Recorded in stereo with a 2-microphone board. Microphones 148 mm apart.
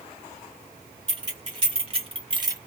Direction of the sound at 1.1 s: 30° right (ahead or behind).